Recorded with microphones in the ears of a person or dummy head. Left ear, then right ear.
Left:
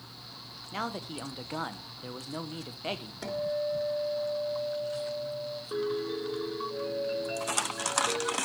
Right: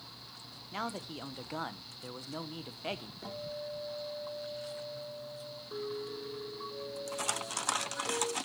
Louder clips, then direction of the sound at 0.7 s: Left 3 dB; 10° right (ahead or behind).